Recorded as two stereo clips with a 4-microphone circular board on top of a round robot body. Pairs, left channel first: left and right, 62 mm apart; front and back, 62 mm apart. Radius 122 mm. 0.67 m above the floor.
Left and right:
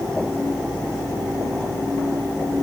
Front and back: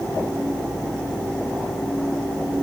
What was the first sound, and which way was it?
Only background noise.